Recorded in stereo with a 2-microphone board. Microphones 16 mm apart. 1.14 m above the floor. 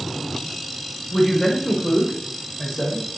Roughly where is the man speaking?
Left.